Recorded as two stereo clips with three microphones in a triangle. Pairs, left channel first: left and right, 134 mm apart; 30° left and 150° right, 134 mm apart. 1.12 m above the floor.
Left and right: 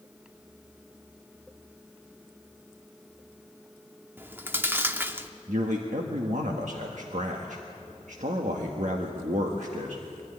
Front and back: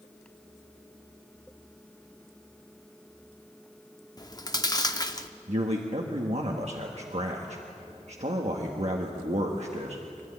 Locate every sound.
4.2 s chewing: 20° right, 0.8 m
5.5 s a man speaking: 115° right, 1.4 m